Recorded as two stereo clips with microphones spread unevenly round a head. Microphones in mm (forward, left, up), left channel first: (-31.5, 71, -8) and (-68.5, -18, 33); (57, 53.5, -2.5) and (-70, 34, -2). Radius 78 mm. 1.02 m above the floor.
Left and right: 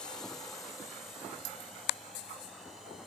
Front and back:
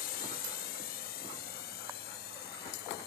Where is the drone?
10° right; by 3.1 s 25° right.